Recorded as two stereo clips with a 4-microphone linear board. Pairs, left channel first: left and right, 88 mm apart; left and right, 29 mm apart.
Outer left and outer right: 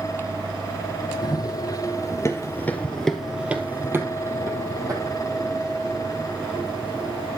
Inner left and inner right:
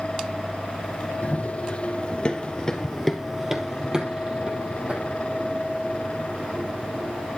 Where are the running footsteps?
50° left (ahead or behind), 3 m; by 7.3 s 50° right (ahead or behind), 6 m.